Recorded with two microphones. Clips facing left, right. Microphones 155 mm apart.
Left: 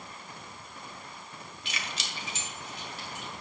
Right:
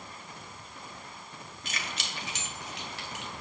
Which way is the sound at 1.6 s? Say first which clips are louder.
Right 1 dB; 45° right (ahead or behind).